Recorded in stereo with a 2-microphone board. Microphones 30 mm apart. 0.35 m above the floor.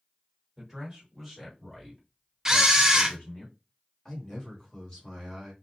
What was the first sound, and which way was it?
A man speaking, 10° right (ahead or behind).